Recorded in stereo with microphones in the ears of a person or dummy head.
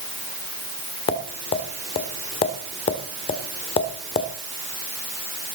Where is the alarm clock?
No alarm clock in this recording.